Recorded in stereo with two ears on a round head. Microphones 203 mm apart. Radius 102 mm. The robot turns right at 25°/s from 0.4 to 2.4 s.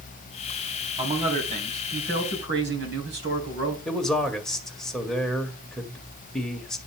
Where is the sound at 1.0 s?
155° right, 3.5 m; by 3.8 s 120° right, 3.5 m.